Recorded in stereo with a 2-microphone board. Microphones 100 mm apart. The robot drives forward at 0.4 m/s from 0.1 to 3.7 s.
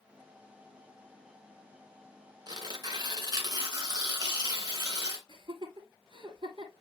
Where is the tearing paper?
45° right (ahead or behind), 2 m.